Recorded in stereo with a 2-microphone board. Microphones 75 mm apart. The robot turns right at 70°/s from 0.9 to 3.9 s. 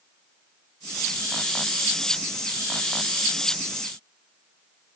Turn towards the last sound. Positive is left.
No sound to turn to.